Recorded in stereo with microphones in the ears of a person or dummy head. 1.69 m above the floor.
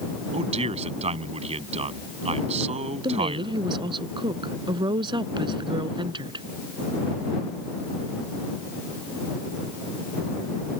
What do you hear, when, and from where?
0.3 s a man speaking: 40° right (ahead or behind)
3.0 s a woman speaking: 30° right (ahead or behind)